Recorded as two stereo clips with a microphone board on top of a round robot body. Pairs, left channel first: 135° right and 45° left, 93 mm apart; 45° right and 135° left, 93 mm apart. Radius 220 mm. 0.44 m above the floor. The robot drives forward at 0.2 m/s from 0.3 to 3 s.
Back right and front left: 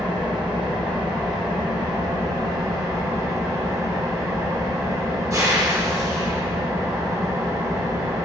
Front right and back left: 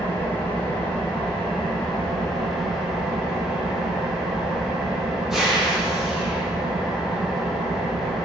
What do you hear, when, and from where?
0.0 s an engine running: 25° left, 1.4 m; by 8.2 s 55° left, 1.1 m